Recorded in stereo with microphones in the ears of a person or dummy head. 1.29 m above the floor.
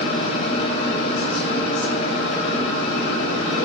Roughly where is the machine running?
Left.